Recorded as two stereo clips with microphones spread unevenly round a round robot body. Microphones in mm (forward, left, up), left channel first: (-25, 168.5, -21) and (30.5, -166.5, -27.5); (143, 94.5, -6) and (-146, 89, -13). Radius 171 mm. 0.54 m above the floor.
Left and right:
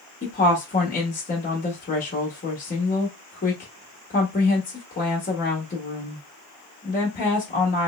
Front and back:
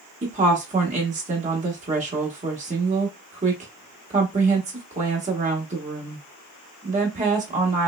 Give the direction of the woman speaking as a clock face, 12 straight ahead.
7 o'clock.